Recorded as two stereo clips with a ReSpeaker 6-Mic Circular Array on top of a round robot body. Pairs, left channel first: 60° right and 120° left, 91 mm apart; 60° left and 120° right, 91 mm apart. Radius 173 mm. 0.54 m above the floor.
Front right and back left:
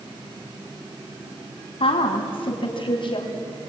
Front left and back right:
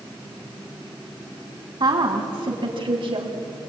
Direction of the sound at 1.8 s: 80° right.